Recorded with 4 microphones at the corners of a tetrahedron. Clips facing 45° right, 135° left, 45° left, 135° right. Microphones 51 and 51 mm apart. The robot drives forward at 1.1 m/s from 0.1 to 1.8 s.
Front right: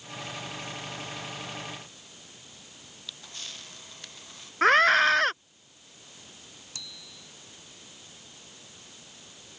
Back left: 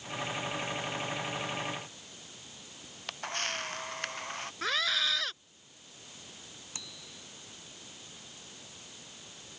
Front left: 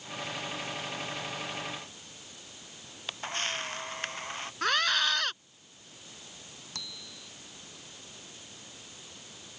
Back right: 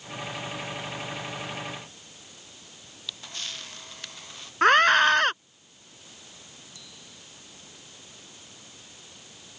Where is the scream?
85° right.